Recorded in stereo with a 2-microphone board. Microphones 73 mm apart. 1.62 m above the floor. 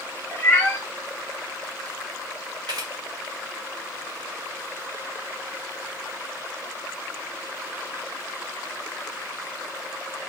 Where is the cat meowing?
20° left (ahead or behind), 0.8 m.